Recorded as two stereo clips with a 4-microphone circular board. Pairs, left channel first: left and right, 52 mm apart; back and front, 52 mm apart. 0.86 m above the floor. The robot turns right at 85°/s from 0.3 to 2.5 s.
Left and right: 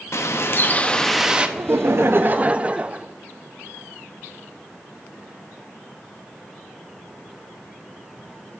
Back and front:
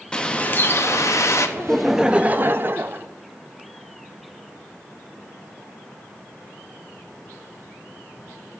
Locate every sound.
0.1 s a bird: 110° left, 0.7 m; by 1.5 s 150° right, 0.7 m
1.6 s laughter: 110° right, 0.5 m; by 3.1 s 30° right, 0.5 m